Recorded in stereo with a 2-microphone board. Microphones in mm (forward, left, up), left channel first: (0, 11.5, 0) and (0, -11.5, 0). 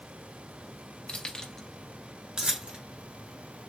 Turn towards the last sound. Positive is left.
turn(degrees=-50)  # may be behind; listen again after turning